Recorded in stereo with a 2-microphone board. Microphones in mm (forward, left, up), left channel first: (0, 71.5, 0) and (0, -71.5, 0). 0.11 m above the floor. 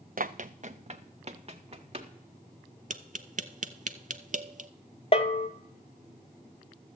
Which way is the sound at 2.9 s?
65° right (ahead or behind).